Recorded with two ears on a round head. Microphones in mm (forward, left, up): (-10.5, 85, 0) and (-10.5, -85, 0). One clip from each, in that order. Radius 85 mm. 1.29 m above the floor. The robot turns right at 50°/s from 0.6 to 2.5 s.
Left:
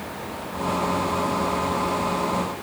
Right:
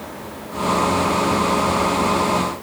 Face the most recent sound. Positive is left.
No sound to turn to.